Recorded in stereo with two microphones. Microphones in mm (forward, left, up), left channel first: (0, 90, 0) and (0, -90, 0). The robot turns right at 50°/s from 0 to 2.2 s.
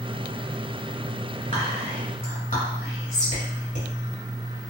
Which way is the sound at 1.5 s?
35° left (ahead or behind).